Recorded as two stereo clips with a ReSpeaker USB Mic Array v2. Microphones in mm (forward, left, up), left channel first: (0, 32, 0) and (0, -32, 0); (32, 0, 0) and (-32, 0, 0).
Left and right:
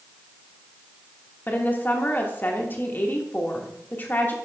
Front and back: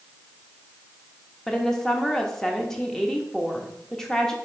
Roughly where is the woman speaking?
Left.